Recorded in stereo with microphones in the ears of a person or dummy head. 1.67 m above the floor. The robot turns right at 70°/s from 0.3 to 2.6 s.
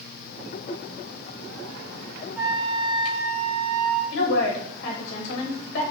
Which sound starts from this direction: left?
A woman speaking, at 4.1 s.